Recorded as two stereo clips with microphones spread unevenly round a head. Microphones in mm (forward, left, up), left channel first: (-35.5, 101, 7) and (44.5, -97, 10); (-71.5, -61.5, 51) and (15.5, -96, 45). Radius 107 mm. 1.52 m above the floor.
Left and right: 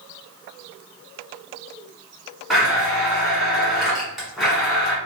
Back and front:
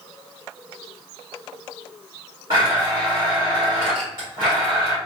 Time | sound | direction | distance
2.5 | a blender | 20° left | 1.3 m